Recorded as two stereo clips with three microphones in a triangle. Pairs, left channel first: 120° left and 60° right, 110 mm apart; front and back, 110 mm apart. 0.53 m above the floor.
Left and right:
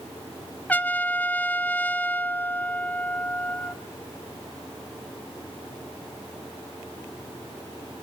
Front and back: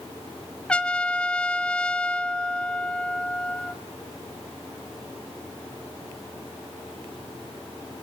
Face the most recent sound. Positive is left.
turn(degrees=65)